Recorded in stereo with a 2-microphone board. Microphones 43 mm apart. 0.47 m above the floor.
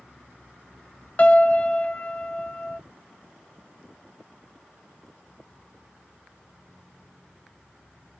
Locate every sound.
1.2 s a piano: 35° left (ahead or behind), 0.5 m